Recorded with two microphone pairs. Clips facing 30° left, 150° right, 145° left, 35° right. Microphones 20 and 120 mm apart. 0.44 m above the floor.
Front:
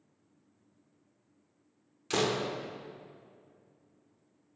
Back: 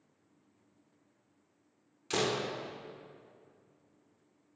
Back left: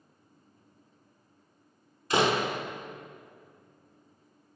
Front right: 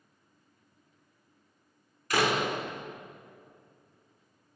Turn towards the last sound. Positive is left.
turn(degrees=105)